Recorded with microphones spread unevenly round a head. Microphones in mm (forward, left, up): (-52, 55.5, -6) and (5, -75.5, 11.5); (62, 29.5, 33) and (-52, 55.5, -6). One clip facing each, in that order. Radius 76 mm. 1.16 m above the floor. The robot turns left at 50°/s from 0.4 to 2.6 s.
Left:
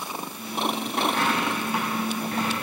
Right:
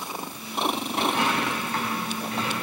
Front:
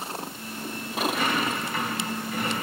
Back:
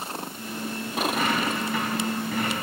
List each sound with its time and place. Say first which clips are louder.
1.0 s a dropped coin: even, back 1 dB; 130° right, 4.5 m; by 2.5 s 155° left, 4.5 m